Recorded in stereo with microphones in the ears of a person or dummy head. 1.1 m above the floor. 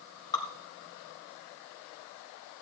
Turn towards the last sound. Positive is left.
turn(degrees=25)  # may be behind; listen again after turning